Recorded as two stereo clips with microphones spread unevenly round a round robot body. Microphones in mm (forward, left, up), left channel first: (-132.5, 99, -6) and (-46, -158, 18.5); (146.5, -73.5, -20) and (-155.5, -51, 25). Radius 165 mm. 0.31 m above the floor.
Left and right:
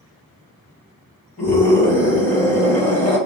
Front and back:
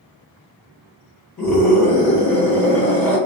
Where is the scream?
65° left, 1.6 m.